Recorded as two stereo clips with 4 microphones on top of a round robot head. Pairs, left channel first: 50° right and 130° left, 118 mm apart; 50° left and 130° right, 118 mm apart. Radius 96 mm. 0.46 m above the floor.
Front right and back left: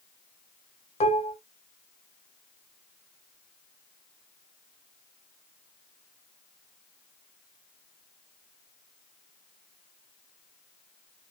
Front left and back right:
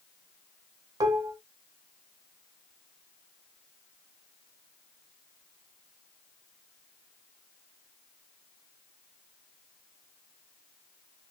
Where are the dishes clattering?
75° right, 1.2 m.